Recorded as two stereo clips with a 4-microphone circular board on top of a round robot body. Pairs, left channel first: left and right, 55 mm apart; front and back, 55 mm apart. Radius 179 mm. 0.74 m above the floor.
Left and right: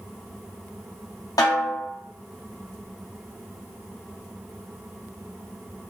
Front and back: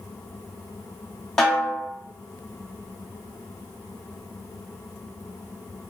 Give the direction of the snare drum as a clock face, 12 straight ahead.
9 o'clock.